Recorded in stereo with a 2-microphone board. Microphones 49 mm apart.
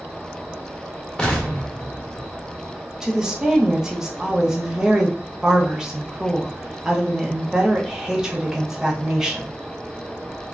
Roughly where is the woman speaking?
Centre.